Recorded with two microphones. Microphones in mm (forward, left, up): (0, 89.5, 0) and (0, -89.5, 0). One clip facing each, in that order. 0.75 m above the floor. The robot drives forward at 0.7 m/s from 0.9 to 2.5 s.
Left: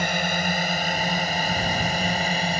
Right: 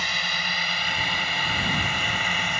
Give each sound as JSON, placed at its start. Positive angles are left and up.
{"t": 0.0, "sound": "a drone", "side_deg": 55}